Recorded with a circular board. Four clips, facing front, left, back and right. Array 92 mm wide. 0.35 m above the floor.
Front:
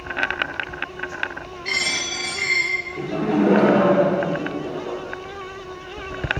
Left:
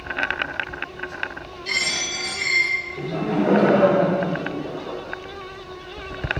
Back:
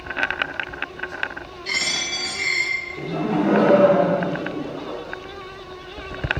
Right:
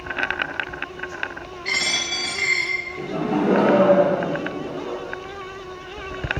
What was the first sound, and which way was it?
A dropped coin, 50° right.